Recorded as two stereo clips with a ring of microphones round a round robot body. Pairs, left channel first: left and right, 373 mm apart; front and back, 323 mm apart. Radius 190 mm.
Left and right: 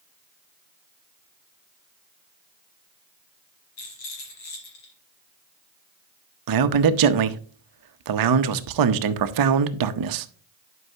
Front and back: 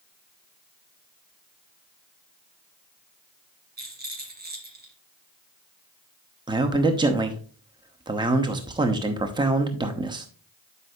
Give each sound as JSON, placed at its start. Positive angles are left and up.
{"t": 3.8, "sound": "a rattle", "azimuth_deg": 120, "distance_m": 3.0}
{"t": 6.5, "sound": "a man speaking", "azimuth_deg": -105, "distance_m": 0.8}